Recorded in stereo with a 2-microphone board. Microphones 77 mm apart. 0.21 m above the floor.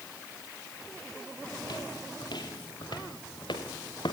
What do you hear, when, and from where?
1.6 s footsteps: 70° left (ahead or behind), 4 m; by 4.1 s 85° left, 3.5 m